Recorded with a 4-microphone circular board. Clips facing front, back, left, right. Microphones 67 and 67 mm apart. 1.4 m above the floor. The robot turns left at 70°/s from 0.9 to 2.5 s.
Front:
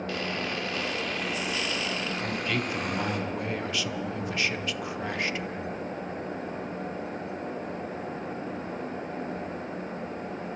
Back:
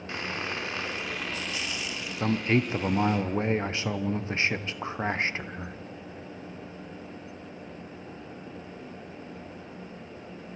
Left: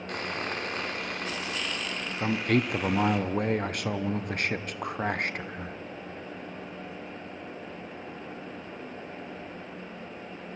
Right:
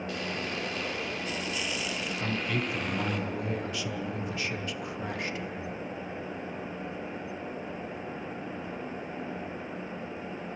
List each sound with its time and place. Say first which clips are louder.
0.1 s sawing: even, left 4 dB; 115° left, 2.5 m; by 3.2 s 5° left, 2.5 m
2.2 s a man speaking: back 9 dB, left 7 dB; 140° left, 0.9 m; by 5.8 s 120° left, 0.9 m